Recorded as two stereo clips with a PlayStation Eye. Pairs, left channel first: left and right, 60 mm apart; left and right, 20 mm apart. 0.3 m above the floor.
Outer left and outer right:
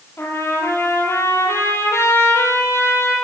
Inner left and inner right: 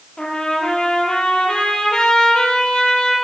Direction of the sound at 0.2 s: 50° left (ahead or behind).